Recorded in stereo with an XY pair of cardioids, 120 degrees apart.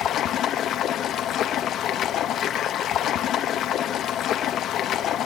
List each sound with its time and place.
0.0 s running water: 65° left, 0.9 m